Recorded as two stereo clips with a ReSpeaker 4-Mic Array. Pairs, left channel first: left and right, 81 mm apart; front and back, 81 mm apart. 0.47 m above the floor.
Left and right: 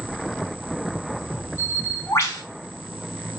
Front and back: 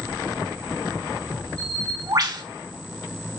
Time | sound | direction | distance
1.6 | a bird | 145° left | 5 m